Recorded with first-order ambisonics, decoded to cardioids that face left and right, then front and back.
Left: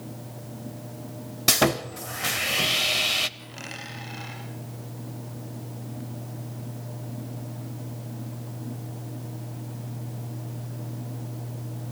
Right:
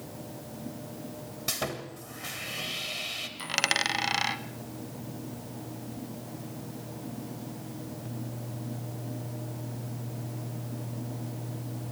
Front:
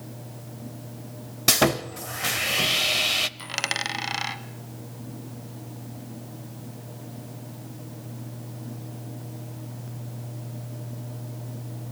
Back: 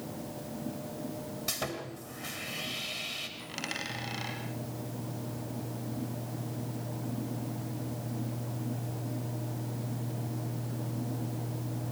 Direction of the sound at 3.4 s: 55° right.